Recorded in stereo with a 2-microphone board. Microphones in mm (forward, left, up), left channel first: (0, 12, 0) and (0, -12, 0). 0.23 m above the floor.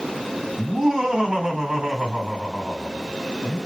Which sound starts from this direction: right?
Laughter, at 0.6 s.